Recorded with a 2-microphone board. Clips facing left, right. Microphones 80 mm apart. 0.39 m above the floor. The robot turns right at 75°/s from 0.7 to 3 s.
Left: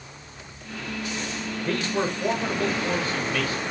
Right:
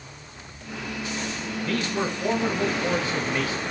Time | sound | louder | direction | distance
1.6 | a man speaking | left 1 dB | 115° left | 1.2 m